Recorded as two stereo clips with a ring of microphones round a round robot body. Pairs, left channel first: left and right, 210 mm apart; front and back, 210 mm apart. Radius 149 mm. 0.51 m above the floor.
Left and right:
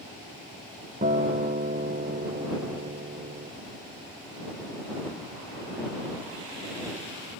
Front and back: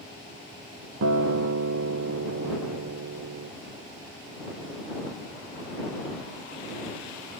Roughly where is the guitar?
Behind right.